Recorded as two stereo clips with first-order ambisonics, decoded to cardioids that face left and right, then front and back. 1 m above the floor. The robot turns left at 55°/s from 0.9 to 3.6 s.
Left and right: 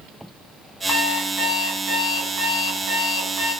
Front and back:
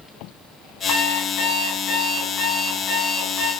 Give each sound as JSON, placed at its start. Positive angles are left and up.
{"t": 0.9, "sound": "an alarm clock", "azimuth_deg": 30, "distance_m": 4.0}